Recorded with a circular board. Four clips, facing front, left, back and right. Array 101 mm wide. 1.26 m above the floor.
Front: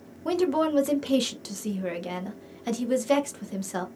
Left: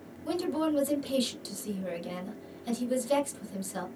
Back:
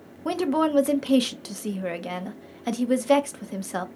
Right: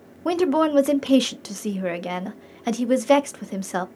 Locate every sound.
0.2 s a woman speaking: 100° right, 0.6 m